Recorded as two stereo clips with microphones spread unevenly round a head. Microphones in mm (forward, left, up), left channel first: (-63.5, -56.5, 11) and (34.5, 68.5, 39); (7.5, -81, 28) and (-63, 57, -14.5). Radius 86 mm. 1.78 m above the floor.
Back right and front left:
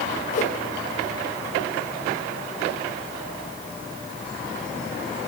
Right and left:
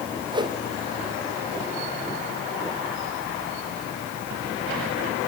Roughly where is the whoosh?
Behind.